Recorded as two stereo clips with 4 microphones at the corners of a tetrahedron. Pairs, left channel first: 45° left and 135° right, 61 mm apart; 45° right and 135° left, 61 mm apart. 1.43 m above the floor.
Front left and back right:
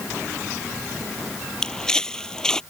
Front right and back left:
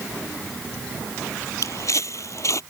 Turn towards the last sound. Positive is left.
turn(degrees=-30)